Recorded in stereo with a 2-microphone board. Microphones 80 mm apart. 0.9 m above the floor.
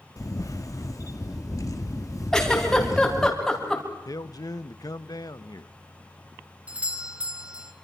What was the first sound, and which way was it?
A camera shutter, 45° left (ahead or behind).